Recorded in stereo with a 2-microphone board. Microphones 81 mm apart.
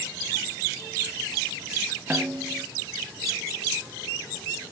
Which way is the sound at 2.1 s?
20° right (ahead or behind).